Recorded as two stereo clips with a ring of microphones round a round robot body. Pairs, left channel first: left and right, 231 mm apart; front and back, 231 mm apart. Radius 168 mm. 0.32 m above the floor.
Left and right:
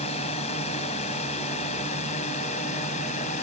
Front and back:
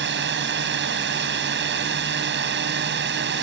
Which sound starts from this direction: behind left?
A drone, at 0.0 s.